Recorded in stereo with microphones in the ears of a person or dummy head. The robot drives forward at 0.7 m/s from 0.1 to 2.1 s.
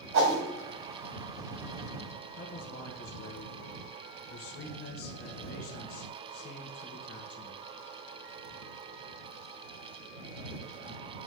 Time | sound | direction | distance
0.1 | a whoosh | 60° right (ahead or behind) | 2.5 m
2.4 | a man speaking | 60° left (ahead or behind) | 1.3 m